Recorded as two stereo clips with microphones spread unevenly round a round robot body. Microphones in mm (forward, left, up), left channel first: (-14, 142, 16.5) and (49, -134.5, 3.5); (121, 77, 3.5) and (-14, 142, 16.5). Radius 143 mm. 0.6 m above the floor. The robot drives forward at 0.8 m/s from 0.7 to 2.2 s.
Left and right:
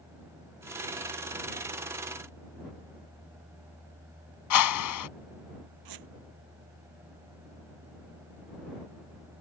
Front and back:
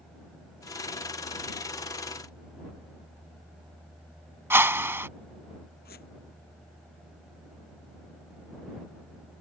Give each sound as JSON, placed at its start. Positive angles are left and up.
{"t": 4.5, "sound": "a whoosh", "azimuth_deg": 80}
{"t": 5.8, "sound": "a squeak", "azimuth_deg": -75}